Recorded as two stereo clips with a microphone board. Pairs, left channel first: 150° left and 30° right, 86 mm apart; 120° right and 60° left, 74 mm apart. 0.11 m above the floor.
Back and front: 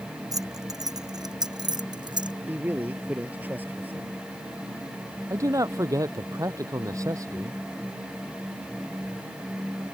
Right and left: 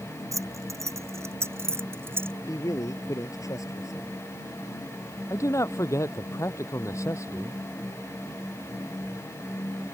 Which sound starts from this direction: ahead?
Keys jangling, at 0.3 s.